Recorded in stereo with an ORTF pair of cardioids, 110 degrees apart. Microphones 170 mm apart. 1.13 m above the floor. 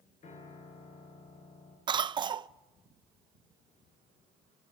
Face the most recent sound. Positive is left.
turn(degrees=-25)